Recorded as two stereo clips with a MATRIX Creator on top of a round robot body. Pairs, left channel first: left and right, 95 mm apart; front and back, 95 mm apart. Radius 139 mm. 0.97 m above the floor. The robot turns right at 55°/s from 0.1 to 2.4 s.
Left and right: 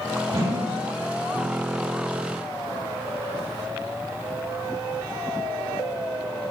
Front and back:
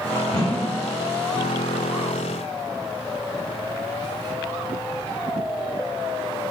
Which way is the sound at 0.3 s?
45° right.